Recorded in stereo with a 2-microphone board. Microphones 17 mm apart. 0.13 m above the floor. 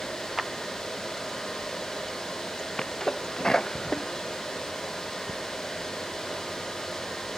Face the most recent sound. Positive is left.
turn(degrees=35)  # may be behind; listen again after turning